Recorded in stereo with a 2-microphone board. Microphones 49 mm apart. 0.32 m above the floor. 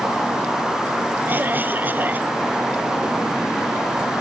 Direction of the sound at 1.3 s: 40° right (ahead or behind).